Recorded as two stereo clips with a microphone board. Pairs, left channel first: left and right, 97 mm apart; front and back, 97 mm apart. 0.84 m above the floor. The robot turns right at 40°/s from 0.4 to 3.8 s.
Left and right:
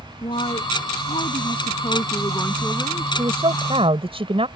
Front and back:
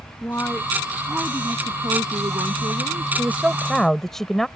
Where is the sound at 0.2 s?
65° left; by 3.0 s 175° left.